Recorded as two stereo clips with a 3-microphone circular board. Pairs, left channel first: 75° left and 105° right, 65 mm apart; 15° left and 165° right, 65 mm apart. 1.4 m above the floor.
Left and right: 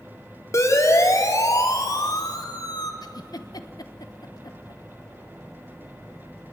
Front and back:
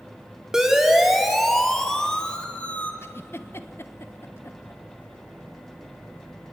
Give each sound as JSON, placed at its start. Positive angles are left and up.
{"t": 0.5, "sound": "a siren", "azimuth_deg": 115, "distance_m": 3.5}
{"t": 3.0, "sound": "a giggle", "azimuth_deg": 65, "distance_m": 1.2}